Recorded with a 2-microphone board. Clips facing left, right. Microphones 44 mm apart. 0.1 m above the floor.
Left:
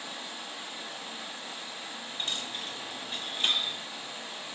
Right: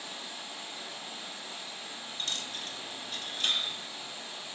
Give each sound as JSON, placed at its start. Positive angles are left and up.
{"t": 0.0, "sound": "running water", "side_deg": 35, "distance_m": 1.5}
{"t": 2.2, "sound": "a dropped coin", "side_deg": 30, "distance_m": 0.6}